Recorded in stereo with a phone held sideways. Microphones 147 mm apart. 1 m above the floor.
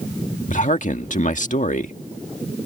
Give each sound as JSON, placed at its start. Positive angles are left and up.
{"t": 0.5, "sound": "a man speaking", "side_deg": 60}